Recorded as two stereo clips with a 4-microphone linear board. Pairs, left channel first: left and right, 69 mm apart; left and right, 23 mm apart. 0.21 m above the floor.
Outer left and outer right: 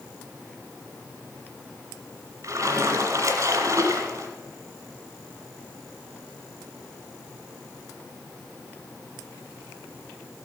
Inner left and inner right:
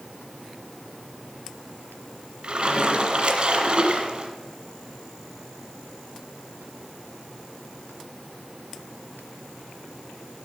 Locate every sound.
2.4 s a splash: 50° right (ahead or behind), 2 m